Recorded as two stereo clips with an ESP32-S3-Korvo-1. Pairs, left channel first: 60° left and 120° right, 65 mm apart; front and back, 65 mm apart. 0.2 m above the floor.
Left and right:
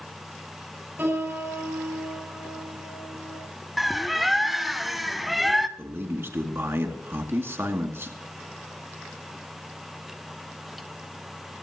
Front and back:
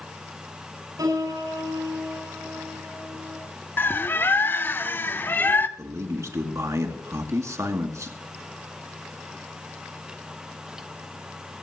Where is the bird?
30° right, 0.7 m.